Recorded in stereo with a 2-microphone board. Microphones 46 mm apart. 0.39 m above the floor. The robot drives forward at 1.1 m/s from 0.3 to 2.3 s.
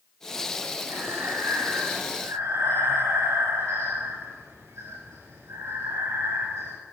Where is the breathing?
85° right, 8.5 m.